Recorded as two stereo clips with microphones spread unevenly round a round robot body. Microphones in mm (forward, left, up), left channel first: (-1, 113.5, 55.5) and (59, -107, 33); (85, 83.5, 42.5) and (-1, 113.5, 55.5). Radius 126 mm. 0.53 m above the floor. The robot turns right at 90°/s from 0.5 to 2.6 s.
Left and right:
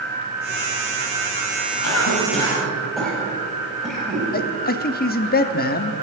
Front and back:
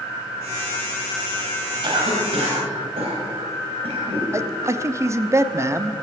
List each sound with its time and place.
1.8 s a cough: 125° left, 4.5 m; by 4.2 s 165° right, 4.5 m
4.3 s a man speaking: 110° left, 0.8 m